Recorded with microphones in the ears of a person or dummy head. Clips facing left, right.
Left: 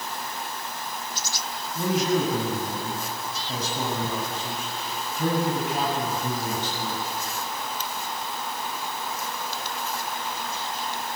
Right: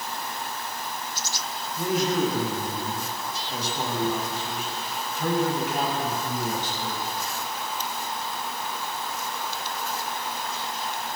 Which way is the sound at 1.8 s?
70° left (ahead or behind).